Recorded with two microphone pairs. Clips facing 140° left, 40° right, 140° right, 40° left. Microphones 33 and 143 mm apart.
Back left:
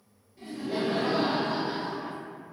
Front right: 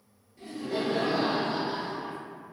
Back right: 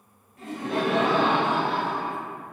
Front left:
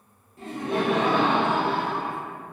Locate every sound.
0.4 s laughter: 60° left, 0.8 m; by 2.2 s 130° left, 1.3 m